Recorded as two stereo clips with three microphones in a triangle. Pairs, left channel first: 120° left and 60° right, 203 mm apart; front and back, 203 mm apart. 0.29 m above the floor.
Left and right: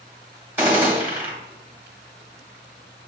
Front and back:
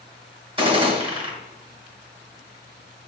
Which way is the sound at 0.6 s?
135° right.